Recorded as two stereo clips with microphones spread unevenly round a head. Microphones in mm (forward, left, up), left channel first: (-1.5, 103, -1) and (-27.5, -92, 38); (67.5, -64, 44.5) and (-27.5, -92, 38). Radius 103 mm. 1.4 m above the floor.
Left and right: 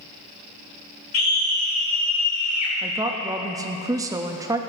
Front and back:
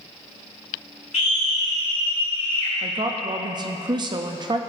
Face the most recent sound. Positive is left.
turn(degrees=180)